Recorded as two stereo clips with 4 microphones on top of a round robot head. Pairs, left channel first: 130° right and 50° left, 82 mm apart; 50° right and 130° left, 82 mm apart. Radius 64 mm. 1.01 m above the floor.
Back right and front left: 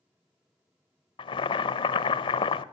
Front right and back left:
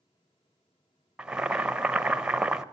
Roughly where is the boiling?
Behind right.